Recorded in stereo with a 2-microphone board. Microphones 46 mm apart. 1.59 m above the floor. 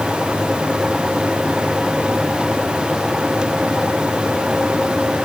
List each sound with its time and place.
Only background noise.